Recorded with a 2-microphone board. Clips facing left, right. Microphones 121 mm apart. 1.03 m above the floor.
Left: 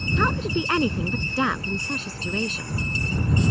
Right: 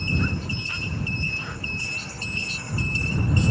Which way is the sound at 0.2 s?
85° left.